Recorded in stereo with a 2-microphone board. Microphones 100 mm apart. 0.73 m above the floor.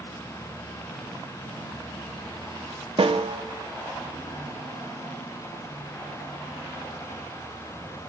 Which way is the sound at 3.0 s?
60° right (ahead or behind).